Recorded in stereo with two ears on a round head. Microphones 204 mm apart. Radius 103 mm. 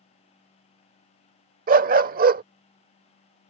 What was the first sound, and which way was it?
A dog barking, 40° right (ahead or behind).